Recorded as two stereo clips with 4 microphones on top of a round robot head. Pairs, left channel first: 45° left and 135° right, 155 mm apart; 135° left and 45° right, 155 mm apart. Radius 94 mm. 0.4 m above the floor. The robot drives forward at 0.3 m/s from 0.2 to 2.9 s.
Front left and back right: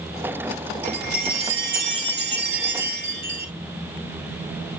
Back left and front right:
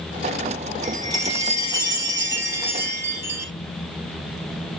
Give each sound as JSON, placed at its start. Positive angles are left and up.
{"t": 0.8, "sound": "a chime", "azimuth_deg": -110, "distance_m": 4.0}